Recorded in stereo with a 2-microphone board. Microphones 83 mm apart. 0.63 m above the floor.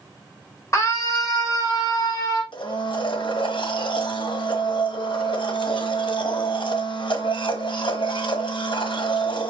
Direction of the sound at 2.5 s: 80° left.